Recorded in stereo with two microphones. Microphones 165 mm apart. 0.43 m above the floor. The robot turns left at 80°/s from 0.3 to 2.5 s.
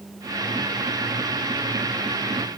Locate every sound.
Only background noise.